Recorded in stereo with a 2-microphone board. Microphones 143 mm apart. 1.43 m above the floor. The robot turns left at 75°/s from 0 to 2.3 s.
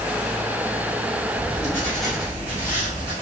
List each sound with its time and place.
1.3 s writing: 55° left, 1.5 m; by 3.1 s 15° right, 1.5 m